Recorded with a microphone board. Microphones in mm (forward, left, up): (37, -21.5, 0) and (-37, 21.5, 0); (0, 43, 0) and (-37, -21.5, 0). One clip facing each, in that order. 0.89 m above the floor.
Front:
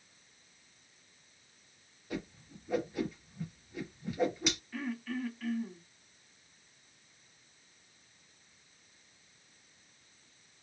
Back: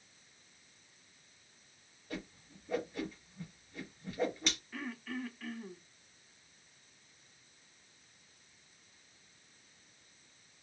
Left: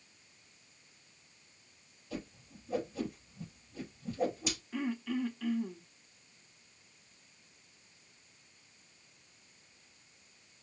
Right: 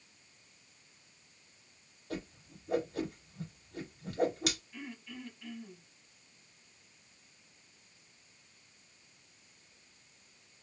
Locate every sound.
2.1 s a whoosh: 110° right, 3 m
4.7 s throat clearing: 60° left, 0.9 m